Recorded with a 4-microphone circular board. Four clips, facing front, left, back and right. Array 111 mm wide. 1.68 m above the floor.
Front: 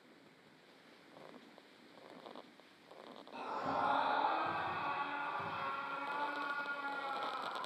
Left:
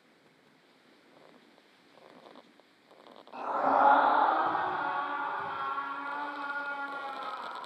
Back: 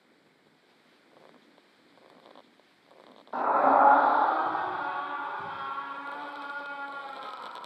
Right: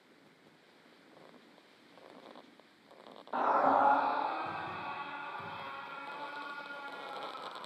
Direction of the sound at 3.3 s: 150° right.